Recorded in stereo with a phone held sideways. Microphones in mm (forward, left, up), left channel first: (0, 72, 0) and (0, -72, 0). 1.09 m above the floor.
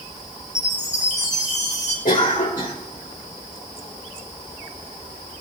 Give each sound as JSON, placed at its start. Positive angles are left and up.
{"t": 0.6, "sound": "a chime", "side_deg": 55, "distance_m": 6.0}
{"t": 2.0, "sound": "a cough", "side_deg": 80, "distance_m": 4.0}